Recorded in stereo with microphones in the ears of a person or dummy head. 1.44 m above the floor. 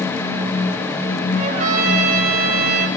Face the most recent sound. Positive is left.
turn(degrees=-40)  # may be behind; listen again after turning